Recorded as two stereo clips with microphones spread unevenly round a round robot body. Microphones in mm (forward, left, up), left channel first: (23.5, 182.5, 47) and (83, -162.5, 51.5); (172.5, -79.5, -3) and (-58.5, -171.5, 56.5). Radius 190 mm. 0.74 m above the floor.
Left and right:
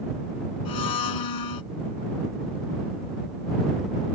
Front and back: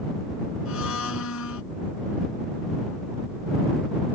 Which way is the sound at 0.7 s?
75° left.